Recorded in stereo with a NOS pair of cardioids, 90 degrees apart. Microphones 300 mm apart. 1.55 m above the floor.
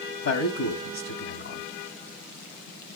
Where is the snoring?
I don't hear snoring.